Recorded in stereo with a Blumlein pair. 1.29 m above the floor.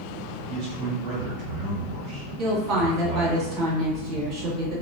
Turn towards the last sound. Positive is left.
turn(degrees=-35)